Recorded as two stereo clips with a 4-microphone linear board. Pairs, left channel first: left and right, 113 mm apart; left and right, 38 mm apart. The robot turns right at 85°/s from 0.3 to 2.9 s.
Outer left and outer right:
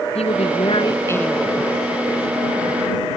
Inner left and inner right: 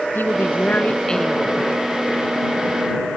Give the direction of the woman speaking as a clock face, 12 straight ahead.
9 o'clock.